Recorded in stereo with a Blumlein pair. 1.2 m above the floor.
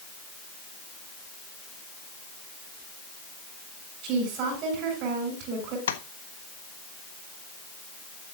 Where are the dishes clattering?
No dishes clattering in this recording.